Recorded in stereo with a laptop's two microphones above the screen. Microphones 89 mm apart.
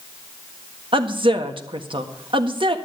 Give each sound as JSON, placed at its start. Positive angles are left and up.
{"t": 0.9, "sound": "a woman speaking", "side_deg": -70, "distance_m": 1.6}